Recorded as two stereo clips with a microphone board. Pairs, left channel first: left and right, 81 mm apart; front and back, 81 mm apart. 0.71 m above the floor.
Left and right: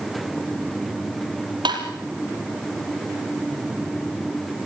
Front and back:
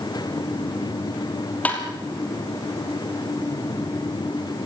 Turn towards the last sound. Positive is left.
turn(degrees=-70)